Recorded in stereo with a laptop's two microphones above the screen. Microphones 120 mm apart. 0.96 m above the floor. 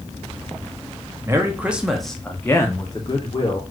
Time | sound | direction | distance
1.2 | a man speaking | 25° right (ahead or behind) | 0.9 m